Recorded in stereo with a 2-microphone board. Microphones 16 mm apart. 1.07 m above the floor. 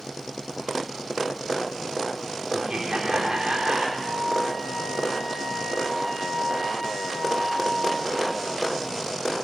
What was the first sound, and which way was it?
Laughter, 80° right.